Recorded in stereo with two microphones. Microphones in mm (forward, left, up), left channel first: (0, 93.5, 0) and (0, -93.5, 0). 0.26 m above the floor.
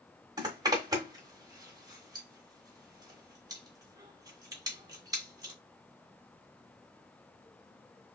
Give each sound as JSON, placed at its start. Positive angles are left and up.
{"t": 0.4, "sound": "a zipper", "side_deg": -20, "distance_m": 1.3}